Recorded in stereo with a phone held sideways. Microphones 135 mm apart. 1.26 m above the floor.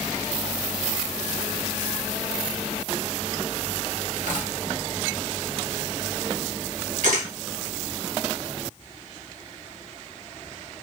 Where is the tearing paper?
65° right (ahead or behind), 1.0 m.